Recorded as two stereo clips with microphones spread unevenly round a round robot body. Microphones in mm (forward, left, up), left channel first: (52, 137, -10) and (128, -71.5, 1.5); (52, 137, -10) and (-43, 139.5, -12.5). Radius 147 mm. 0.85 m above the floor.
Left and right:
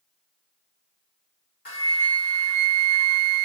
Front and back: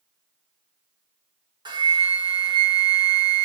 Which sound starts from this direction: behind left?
A flute, at 1.6 s.